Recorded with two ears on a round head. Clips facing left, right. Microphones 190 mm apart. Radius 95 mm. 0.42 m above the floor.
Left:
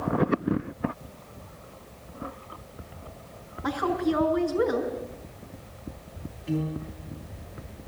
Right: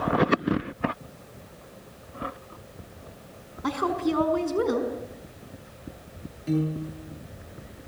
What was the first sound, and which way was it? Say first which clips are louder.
A woman speaking: even; 45° right (ahead or behind).